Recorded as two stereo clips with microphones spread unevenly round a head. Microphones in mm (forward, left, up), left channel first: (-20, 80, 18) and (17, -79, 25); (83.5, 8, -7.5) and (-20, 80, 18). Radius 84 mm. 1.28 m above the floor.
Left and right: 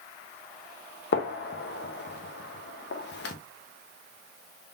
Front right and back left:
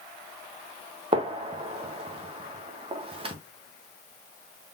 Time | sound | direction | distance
1.1 | a gunshot | 100° left | 1.0 m